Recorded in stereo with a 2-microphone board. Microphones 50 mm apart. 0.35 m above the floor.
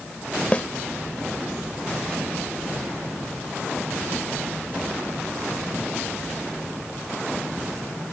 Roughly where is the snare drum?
Left.